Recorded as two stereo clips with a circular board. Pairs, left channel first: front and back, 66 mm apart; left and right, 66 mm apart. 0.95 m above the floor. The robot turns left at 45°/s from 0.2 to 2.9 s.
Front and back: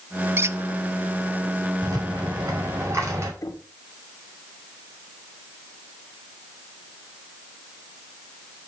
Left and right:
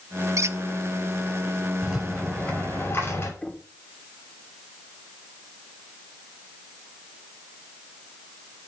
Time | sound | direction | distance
0.4 | a squeak | 125° right | 0.6 m
1.8 | a rattle | 175° right | 6 m
3.4 | knocking | 20° left | 2 m